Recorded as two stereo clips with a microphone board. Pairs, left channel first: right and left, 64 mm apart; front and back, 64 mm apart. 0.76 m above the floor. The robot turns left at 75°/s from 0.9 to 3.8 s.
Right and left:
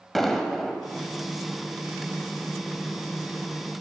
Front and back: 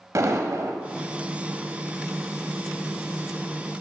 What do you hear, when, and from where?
0.1 s an explosion: 175° right, 0.8 m